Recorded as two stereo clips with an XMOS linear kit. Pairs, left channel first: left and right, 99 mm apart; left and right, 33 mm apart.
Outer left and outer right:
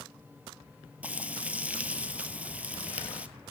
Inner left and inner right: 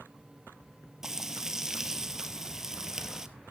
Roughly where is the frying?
Centre.